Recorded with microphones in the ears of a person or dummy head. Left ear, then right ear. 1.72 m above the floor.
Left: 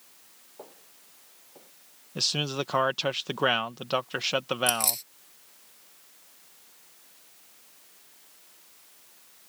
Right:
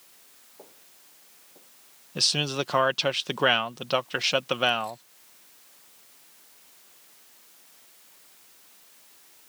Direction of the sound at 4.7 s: 35° left (ahead or behind).